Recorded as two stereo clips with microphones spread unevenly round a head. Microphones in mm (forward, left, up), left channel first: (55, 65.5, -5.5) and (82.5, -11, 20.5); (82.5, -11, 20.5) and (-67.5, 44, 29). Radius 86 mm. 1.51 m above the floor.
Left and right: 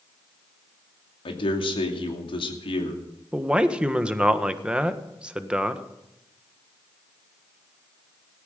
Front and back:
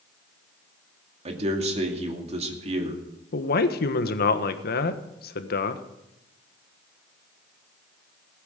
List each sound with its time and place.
1.2 s a man speaking: 110° left, 2.5 m
3.3 s a man speaking: 5° left, 1.4 m